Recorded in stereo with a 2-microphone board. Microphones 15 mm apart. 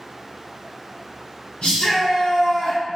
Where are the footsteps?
I don't hear footsteps.